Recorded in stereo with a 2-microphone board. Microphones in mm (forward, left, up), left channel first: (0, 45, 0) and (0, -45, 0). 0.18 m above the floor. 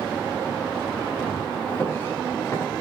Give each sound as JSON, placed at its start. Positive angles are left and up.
{"t": 1.7, "sound": "footsteps", "side_deg": 25, "distance_m": 7.0}